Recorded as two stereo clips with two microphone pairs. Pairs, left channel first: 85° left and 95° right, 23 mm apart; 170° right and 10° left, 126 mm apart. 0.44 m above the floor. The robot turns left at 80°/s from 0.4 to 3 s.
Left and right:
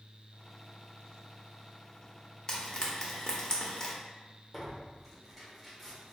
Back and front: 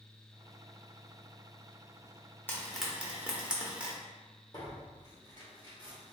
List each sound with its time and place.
2.5 s frying: 125° left, 0.8 m; by 4.0 s 85° left, 0.8 m
4.5 s tearing paper: 170° left, 1.3 m